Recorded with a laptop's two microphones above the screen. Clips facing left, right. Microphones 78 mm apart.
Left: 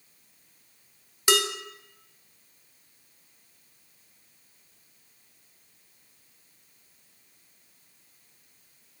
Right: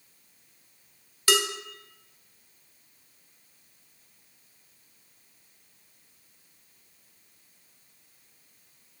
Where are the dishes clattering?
20° left (ahead or behind), 0.7 m.